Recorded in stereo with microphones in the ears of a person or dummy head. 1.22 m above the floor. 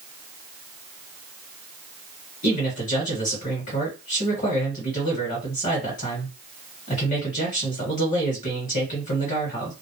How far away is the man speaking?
About 1.6 m.